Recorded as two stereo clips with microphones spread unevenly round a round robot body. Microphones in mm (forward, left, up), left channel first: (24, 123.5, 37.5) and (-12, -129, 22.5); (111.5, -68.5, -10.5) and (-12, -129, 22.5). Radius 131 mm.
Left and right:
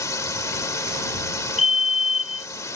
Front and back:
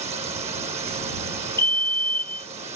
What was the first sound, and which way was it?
A drone, 160° left.